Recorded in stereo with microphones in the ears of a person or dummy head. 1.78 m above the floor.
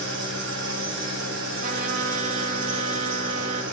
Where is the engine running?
65° right (ahead or behind), 2.5 m.